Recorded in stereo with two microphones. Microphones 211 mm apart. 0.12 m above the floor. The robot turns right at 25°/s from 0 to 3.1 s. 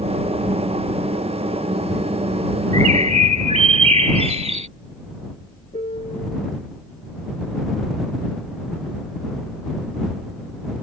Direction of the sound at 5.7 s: 35° left (ahead or behind).